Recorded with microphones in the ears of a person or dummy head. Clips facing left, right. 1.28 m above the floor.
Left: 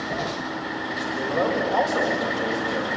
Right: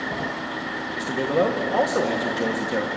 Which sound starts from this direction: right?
A man speaking, at 0.9 s.